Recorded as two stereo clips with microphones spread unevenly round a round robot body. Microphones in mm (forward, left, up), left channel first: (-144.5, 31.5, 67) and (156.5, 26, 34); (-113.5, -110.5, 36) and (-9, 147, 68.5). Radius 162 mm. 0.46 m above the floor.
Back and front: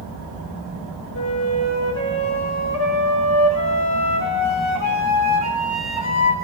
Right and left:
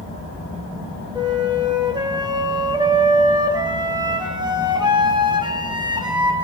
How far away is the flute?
About 6 m.